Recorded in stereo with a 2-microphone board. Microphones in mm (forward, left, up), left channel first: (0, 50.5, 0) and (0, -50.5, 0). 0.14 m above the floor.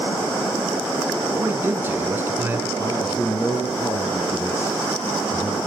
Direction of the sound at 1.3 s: 20° right (ahead or behind).